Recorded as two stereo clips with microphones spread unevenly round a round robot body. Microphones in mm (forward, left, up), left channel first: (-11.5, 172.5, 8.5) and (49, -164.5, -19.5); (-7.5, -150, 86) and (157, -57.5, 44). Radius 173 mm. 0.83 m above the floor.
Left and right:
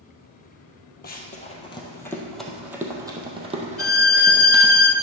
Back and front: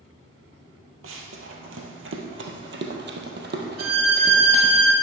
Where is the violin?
55° left, 1.2 m.